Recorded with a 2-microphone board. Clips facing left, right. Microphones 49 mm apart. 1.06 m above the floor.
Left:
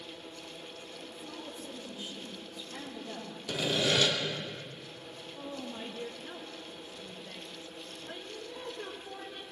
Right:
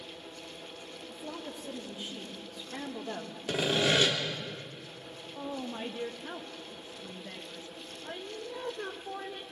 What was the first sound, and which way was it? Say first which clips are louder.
A woman speaking: right 5 dB; 75° right (ahead or behind).